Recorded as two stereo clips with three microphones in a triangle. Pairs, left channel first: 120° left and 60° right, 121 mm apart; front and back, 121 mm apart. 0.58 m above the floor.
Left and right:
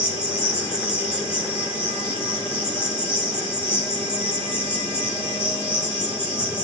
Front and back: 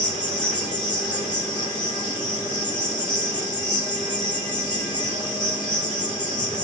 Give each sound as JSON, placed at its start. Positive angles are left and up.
{"t": 0.0, "sound": "an insect", "azimuth_deg": 50, "distance_m": 3.5}